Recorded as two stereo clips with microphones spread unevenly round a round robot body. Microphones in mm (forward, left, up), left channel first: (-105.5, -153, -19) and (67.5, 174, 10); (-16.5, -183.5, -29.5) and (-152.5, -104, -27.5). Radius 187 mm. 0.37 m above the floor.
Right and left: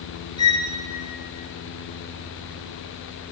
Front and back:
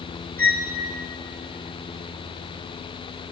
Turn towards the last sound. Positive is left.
turn(degrees=-80)